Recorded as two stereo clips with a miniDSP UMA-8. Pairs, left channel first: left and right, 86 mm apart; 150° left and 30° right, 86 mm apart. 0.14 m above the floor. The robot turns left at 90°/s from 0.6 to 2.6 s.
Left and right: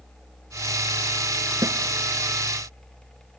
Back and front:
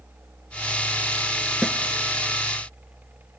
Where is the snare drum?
120° right, 1.2 m; by 1.8 s 130° right, 1.2 m.